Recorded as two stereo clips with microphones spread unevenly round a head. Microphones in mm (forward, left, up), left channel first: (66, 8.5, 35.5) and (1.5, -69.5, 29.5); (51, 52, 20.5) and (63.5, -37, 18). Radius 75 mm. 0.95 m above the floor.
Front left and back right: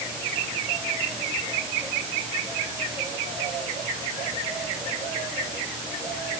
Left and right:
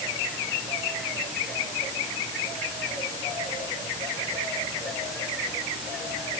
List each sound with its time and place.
Only background noise.